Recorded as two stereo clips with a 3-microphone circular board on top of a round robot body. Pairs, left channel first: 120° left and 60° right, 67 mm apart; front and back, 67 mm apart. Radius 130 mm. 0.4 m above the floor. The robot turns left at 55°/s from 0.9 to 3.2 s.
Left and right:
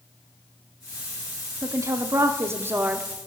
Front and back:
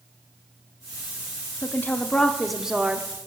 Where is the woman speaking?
40° right, 0.9 m; by 3.1 s 120° right, 0.9 m.